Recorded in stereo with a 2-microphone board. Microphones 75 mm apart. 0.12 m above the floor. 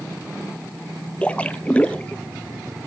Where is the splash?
15° left (ahead or behind), 0.8 m.